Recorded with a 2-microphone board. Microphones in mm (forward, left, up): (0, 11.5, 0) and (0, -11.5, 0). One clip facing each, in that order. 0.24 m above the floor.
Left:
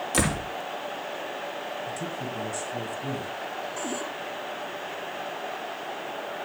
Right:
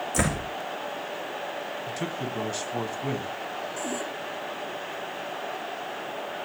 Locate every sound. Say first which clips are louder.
0.1 s a door slam: left 1 dB; 65° left (ahead or behind), 5.5 m
1.9 s a man speaking: right 1 dB; 50° right (ahead or behind), 2 m
3.8 s a cupboard door: even; 15° left (ahead or behind), 5 m